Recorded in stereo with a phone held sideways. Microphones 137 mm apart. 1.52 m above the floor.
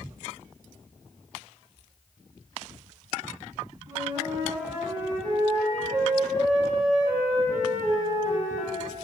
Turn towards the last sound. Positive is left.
turn(degrees=-25)  # may be behind; listen again after turning